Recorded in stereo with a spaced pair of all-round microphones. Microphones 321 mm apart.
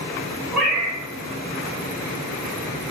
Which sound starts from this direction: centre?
A cat meowing, at 0.5 s.